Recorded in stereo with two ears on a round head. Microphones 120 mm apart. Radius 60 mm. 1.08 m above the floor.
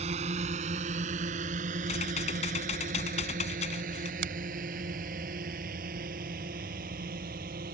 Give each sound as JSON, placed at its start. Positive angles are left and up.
{"t": 0.0, "sound": "a drone", "side_deg": -55}
{"t": 1.9, "sound": "typing on a keyboard", "side_deg": 50}
{"t": 4.2, "sound": "a finger snap", "side_deg": -85}